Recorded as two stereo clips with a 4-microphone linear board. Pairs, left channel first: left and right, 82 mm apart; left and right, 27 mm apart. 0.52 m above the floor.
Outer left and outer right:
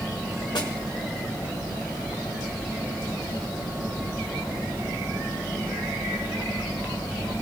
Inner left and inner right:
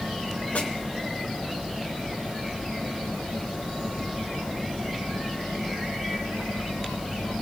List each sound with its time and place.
0.6 s a snare drum: 65° left (ahead or behind), 1.5 m